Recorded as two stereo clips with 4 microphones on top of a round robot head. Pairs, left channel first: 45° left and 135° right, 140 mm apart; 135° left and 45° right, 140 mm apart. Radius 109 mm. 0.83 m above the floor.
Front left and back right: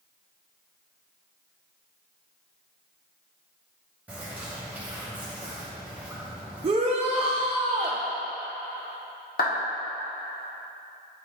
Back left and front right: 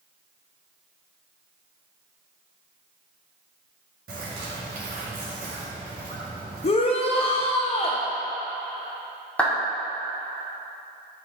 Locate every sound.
4.1 s a bird: 60° right, 0.9 m
6.6 s a shout: 175° left, 0.6 m
9.4 s a clap: 55° left, 1.8 m